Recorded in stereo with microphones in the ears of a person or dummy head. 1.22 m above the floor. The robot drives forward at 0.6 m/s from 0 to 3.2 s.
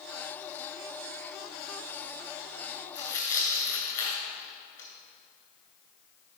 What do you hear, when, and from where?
3.0 s tearing paper: 25° left (ahead or behind), 1.8 m